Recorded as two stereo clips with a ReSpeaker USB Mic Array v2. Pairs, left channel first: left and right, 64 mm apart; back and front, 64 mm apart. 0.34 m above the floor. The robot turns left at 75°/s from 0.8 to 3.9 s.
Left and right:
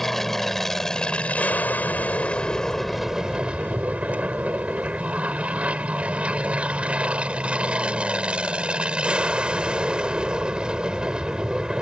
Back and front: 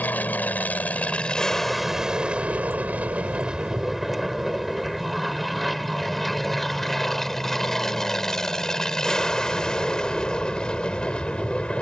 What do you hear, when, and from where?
0.0 s an aircraft: 170° left; by 11.8 s 145° right